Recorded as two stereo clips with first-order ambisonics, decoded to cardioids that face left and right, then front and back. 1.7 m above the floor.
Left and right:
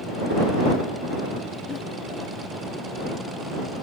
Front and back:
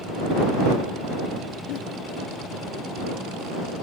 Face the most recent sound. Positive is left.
turn(degrees=30)